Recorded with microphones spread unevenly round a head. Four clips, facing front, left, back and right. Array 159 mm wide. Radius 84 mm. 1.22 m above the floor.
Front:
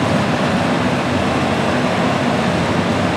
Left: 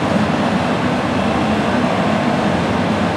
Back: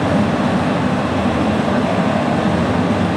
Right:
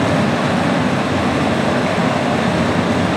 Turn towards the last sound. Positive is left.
turn(degrees=-80)